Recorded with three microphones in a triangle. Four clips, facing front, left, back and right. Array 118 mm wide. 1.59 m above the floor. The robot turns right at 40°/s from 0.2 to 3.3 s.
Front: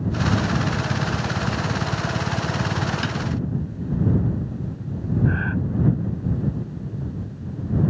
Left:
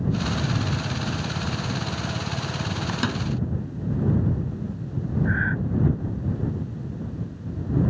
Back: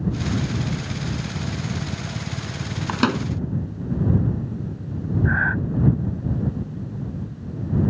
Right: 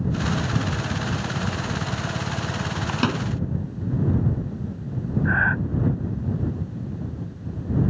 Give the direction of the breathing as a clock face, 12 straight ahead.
4 o'clock.